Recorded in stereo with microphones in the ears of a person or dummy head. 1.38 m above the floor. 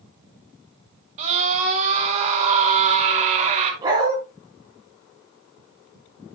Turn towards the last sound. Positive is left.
turn(degrees=-25)  # may be behind; listen again after turning